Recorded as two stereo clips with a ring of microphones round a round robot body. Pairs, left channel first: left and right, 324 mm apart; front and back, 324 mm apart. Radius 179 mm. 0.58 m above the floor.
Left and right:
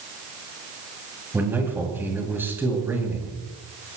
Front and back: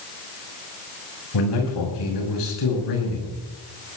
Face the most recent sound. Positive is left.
turn(degrees=-5)